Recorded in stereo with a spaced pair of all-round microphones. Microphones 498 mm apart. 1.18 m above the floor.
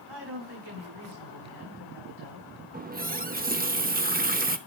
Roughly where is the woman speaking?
Right.